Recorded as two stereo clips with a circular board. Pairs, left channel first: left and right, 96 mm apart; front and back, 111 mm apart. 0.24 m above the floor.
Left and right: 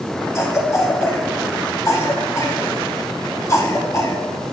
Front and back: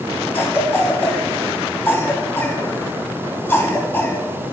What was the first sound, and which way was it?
A cough, 60° left.